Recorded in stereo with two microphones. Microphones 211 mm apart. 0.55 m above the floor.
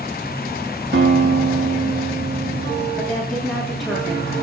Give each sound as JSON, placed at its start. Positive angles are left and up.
{"t": 0.9, "sound": "a guitar", "side_deg": -55, "distance_m": 2.5}
{"t": 3.0, "sound": "a woman speaking", "side_deg": 0, "distance_m": 8.0}